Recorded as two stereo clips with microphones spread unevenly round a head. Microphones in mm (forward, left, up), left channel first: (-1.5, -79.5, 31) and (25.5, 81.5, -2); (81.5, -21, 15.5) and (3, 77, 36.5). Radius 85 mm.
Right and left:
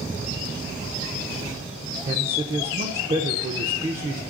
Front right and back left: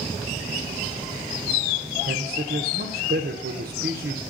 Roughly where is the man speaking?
Behind left.